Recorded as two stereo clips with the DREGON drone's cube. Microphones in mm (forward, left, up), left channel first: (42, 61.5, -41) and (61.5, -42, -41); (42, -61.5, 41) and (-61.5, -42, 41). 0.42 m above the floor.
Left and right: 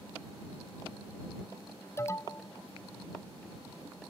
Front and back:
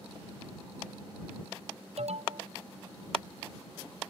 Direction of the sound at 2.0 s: 165° left.